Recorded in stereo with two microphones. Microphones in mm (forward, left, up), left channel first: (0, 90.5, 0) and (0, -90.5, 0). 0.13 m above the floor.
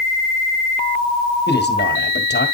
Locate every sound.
1.5 s a man speaking: 65° left (ahead or behind), 3 m